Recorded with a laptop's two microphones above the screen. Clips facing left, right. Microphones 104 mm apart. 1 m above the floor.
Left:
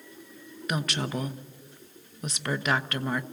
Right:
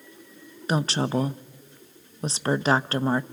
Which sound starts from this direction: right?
A woman speaking, at 0.7 s.